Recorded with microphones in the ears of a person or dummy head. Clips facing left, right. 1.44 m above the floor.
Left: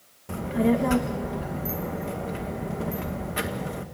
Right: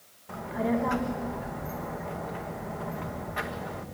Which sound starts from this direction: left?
A child speaking, at 0.3 s.